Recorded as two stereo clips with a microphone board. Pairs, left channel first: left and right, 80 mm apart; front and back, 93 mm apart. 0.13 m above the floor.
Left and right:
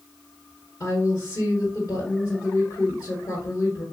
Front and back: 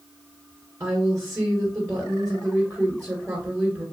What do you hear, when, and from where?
0.8 s a woman speaking: 135° left, 1.9 m